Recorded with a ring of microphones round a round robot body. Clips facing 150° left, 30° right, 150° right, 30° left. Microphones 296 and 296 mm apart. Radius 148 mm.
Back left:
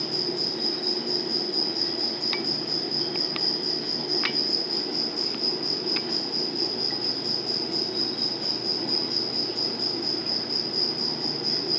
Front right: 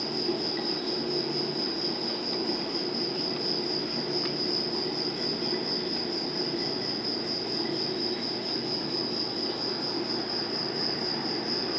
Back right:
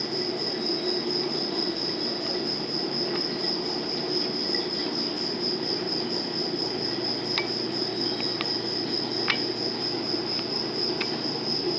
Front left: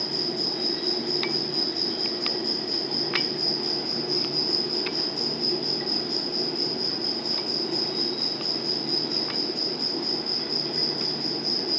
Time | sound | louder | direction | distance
0.0 | an insect | front right 1 dB, back right 1 dB | 100° left | 3.5 m